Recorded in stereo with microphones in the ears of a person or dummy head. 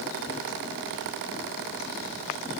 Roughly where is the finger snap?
No finger snap in this recording.